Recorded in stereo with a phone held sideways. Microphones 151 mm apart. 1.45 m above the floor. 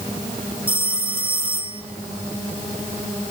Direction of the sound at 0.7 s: 35° right (ahead or behind).